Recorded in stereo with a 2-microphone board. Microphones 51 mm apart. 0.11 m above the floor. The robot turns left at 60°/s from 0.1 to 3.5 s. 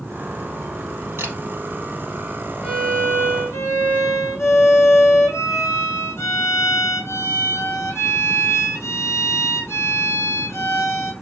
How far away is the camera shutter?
About 3 m.